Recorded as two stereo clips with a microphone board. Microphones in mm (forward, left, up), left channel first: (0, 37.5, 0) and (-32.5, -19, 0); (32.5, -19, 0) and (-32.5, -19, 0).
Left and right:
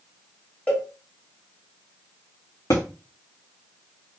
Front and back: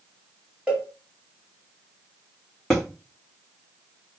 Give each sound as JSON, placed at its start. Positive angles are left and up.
{"t": 0.7, "sound": "a cowbell", "azimuth_deg": 115, "distance_m": 1.7}
{"t": 2.7, "sound": "a thud", "azimuth_deg": 85, "distance_m": 1.5}